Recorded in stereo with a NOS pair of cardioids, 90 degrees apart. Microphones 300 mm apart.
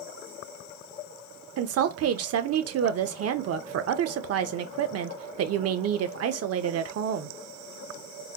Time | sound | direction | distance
1.6 | a woman speaking | 55° right | 0.7 m